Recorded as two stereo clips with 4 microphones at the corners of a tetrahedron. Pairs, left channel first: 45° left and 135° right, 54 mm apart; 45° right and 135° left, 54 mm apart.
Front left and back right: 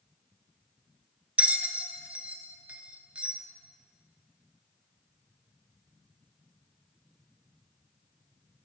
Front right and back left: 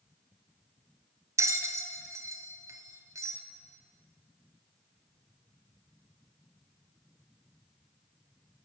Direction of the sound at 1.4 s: 160° left.